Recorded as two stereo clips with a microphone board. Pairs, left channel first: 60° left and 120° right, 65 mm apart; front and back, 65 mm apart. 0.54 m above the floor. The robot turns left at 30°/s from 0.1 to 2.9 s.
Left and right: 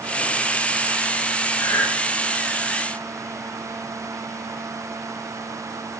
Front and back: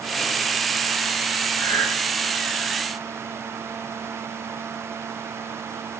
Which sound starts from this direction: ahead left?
Breathing, at 1.6 s.